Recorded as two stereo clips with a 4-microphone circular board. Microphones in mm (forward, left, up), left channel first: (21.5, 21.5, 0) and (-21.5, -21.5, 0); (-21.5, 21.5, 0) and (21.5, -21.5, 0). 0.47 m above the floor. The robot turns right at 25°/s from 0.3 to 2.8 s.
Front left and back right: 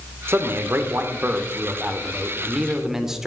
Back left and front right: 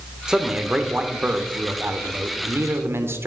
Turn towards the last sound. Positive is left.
turn(degrees=-55)